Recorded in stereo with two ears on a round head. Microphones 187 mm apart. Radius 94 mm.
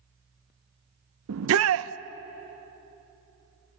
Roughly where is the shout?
Right.